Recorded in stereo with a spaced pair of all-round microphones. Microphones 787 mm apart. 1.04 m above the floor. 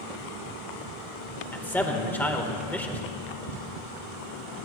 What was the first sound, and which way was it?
A man speaking, centre (ahead or behind).